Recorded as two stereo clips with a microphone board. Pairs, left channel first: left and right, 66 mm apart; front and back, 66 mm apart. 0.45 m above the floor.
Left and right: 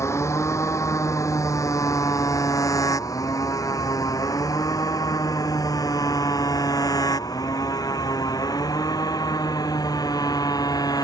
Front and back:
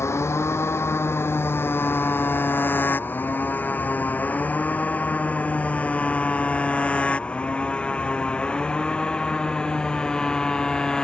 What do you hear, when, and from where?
0.0 s a motorcycle: 45° left; by 11.0 s 80° left